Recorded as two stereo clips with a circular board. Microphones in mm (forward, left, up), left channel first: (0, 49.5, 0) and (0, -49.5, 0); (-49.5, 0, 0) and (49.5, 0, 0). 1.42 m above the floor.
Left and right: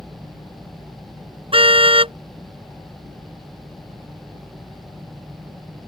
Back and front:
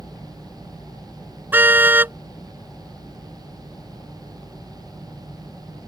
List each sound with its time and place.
1.5 s a car horn: 70° right